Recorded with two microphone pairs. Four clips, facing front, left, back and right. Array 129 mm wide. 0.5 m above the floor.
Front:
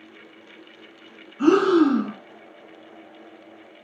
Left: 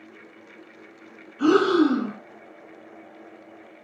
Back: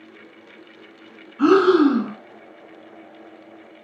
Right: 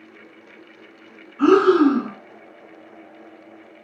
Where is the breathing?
145° right, 1.6 m.